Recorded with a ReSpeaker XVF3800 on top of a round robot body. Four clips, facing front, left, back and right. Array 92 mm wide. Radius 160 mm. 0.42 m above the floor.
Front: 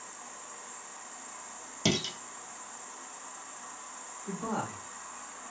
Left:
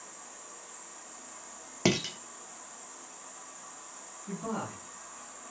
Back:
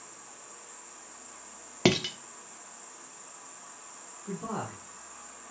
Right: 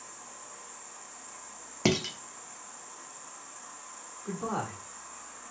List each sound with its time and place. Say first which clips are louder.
0.0 s an insect: right 1 dB, front 4 dB; 15° right, 1.0 m
1.9 s dishes clattering: right 1 dB, back 5 dB; straight behind, 0.7 m
4.2 s a man speaking: right 3 dB, front 1 dB; 80° right, 1.4 m